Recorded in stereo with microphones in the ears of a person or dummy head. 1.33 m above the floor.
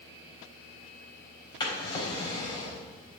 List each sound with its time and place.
1.6 s a drawer: 20° left (ahead or behind), 4 m